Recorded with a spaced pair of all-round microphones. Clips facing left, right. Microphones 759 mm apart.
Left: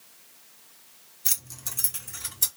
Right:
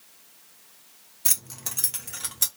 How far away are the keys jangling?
About 0.7 m.